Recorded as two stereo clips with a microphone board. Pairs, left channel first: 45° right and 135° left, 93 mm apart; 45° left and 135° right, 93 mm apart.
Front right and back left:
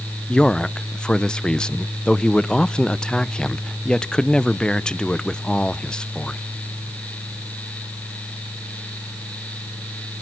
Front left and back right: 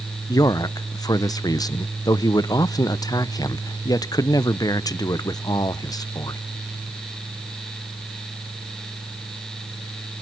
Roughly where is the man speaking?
Ahead left.